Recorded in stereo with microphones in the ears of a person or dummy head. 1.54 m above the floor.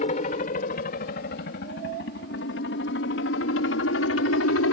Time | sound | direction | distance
0.0 | a helicopter | 35° left (ahead or behind) | ?